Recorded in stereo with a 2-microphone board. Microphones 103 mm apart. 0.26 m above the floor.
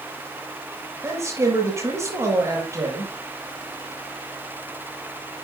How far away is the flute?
I don't hear a flute.